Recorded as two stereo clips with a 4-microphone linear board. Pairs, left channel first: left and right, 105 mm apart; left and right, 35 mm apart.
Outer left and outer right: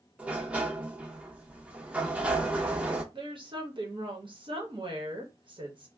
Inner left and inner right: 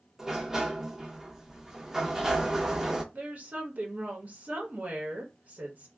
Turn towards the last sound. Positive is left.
turn(degrees=-50)  # may be behind; listen again after turning